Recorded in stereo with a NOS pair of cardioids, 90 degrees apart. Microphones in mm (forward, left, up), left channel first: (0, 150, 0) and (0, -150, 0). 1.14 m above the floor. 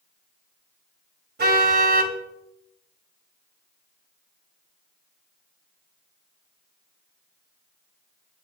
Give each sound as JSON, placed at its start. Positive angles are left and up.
{"t": 1.4, "sound": "a car horn", "azimuth_deg": -35, "distance_m": 3.0}